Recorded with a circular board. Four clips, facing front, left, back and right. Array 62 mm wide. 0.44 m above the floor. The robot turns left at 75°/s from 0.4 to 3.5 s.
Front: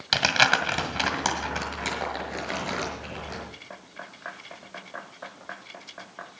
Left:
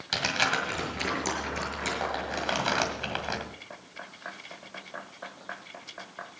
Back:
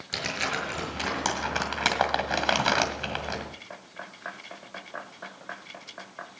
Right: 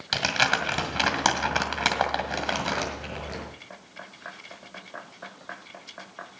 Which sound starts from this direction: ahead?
Crumpling, at 0.1 s.